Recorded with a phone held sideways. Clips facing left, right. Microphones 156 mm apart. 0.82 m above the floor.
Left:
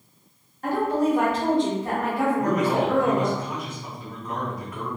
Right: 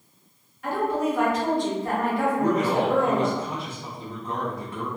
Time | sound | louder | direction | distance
0.6 | a woman speaking | left 2 dB | 40° left (ahead or behind) | 1.2 m
2.4 | a man speaking | right 2 dB | 30° right (ahead or behind) | 0.8 m